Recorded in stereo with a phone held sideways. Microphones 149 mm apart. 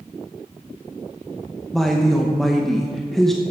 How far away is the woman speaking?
About 0.8 m.